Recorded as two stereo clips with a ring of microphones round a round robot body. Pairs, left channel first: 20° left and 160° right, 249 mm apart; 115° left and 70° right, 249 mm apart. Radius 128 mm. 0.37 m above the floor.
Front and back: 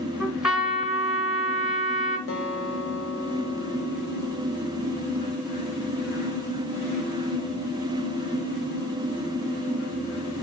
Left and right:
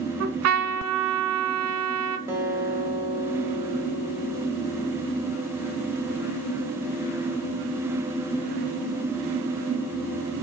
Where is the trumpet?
70° right, 1.0 m.